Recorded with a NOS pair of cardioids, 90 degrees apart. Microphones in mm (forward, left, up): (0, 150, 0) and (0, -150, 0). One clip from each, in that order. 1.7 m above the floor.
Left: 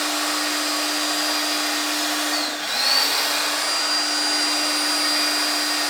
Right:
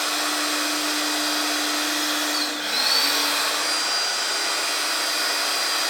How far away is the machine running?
About 1.5 m.